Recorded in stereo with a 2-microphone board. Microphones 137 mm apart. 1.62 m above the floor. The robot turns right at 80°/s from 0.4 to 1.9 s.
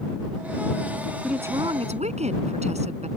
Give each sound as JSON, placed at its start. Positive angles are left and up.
{"t": 1.2, "sound": "a woman speaking", "azimuth_deg": 180}